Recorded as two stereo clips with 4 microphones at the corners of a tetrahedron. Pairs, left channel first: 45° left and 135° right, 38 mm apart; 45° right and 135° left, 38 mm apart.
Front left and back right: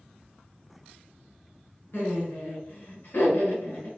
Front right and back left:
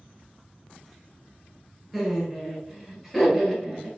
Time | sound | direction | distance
1.9 | laughter | 50° left | 1.9 m